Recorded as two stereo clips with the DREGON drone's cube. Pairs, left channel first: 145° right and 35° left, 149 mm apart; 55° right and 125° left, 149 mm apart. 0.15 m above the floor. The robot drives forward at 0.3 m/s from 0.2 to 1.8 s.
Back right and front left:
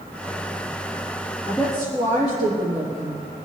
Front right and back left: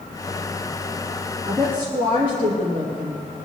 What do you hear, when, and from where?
1.5 s a woman speaking: 155° left, 4 m